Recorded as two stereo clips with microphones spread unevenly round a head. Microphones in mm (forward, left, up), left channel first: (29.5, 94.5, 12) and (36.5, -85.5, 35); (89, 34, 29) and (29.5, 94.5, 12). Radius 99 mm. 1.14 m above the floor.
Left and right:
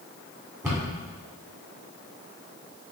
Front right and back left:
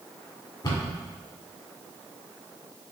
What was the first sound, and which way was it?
A cupboard door, 10° right.